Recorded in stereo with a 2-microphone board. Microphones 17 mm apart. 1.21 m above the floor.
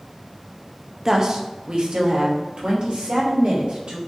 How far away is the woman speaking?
About 0.5 m.